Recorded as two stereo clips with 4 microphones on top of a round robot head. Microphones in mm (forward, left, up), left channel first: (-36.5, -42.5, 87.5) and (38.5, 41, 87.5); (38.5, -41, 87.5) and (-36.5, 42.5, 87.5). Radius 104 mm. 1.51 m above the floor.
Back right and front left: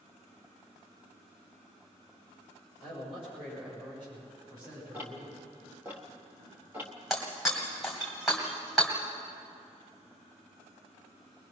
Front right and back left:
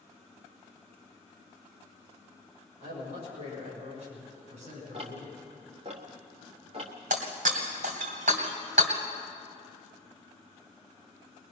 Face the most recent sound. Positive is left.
turn(degrees=135)